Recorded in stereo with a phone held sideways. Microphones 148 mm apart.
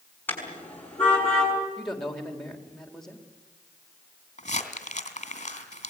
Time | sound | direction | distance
0.3 | a car horn | 10° left (ahead or behind) | 6 m
1.8 | a man speaking | 5° left (ahead or behind) | 3.5 m
4.4 | crumpling | 50° left (ahead or behind) | 2.5 m